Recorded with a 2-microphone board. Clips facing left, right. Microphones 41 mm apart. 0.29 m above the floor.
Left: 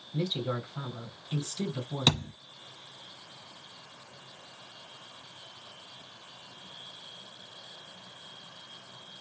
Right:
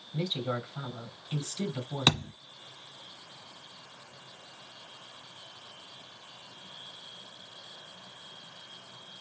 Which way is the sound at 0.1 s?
25° right (ahead or behind).